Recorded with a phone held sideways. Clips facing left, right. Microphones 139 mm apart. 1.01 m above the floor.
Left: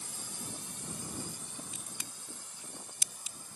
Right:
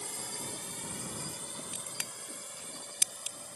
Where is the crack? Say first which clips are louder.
Right 3 dB; 75° right (ahead or behind).